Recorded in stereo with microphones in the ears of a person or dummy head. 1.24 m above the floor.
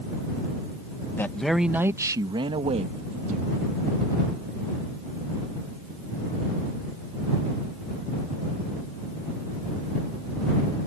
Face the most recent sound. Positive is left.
turn(degrees=-40)  # may be behind; listen again after turning